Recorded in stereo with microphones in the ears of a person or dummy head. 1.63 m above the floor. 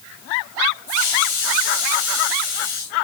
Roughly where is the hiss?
Left.